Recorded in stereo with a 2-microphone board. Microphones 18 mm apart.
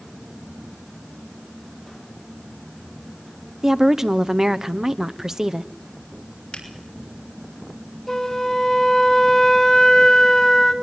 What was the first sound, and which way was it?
A woman speaking, 25° right (ahead or behind).